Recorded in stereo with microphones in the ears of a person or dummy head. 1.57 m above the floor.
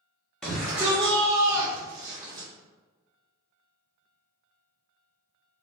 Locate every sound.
0.4 s a shout: centre (ahead or behind), 0.6 m; by 2.5 s 30° right (ahead or behind), 1.0 m